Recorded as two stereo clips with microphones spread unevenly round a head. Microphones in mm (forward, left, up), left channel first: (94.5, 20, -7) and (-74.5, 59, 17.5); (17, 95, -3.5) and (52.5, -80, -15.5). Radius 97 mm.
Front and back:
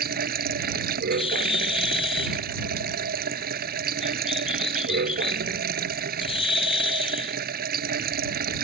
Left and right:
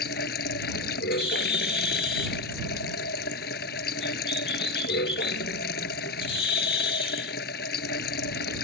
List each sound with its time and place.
0.0 s running water: 140° left
1.1 s a bird: 40° left